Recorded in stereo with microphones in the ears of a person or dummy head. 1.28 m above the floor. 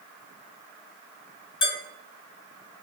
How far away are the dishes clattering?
About 1.5 m.